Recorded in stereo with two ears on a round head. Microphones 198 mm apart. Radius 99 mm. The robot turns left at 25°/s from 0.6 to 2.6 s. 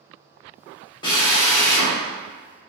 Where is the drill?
20° left (ahead or behind), 1.1 m; by 1.9 s 45° left (ahead or behind), 1.1 m.